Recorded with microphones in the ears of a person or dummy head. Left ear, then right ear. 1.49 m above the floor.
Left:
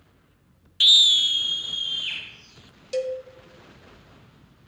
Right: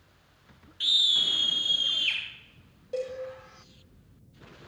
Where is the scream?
50° left (ahead or behind), 0.8 m; by 2.2 s 15° right (ahead or behind), 1.9 m.